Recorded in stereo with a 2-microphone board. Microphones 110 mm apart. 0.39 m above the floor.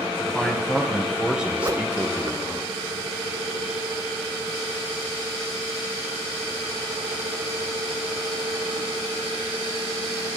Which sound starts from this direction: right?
A whoosh, at 1.6 s.